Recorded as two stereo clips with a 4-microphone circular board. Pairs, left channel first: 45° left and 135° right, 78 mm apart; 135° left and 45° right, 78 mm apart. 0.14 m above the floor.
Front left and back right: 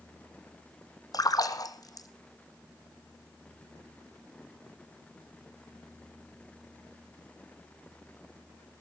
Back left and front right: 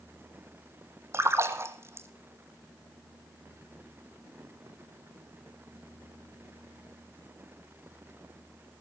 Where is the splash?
10° left, 1.2 m.